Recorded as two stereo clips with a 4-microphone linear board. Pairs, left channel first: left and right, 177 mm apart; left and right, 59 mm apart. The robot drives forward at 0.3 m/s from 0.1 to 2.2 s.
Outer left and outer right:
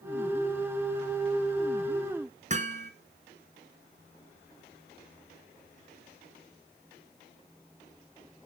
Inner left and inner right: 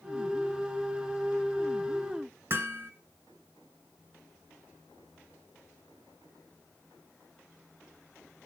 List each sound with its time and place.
2.5 s hammering: 45° right (ahead or behind), 1.9 m